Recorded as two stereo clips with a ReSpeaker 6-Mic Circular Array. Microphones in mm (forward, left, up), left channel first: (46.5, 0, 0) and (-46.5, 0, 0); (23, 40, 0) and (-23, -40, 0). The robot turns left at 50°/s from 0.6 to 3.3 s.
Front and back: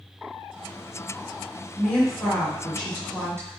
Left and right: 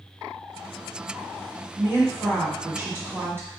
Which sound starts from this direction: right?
A woman speaking, at 1.8 s.